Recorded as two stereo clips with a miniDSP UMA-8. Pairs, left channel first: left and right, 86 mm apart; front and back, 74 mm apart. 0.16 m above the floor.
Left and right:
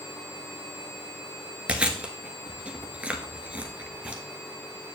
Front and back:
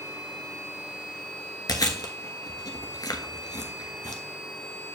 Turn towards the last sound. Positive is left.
turn(degrees=-15)